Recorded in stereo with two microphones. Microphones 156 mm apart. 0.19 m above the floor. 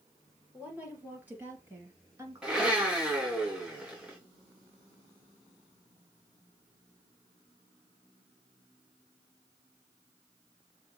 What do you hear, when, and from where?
0.5 s a woman speaking: 5° right (ahead or behind), 4.5 m; by 2.8 s 25° right (ahead or behind), 2.5 m
2.4 s a blender: 5° right (ahead or behind), 2.5 m